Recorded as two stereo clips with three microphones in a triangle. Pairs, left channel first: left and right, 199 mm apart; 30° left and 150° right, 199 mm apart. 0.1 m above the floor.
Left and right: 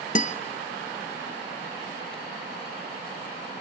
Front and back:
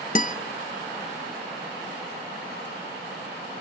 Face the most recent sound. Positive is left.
turn(degrees=60)